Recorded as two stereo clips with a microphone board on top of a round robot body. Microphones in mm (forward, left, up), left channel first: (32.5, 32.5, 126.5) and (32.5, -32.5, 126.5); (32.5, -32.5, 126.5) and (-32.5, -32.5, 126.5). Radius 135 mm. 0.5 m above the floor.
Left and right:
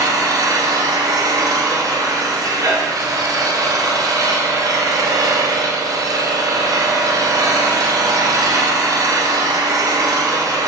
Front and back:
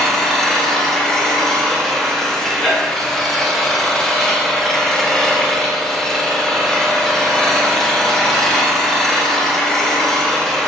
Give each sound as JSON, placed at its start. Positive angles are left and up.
{"t": 0.0, "sound": "an engine running", "azimuth_deg": -85, "distance_m": 1.5}